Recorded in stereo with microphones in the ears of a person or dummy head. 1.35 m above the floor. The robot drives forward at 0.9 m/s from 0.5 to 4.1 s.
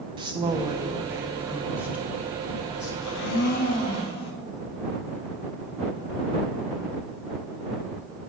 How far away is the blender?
About 0.6 m.